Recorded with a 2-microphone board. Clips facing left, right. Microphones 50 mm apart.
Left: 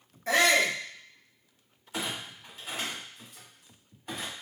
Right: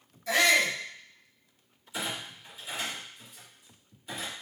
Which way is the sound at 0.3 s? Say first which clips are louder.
Left 1 dB; 40° left (ahead or behind).